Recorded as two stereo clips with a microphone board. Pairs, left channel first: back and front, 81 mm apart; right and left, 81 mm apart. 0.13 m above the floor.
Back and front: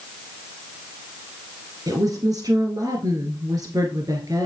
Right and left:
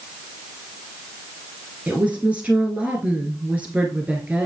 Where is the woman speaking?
20° left, 1.8 m.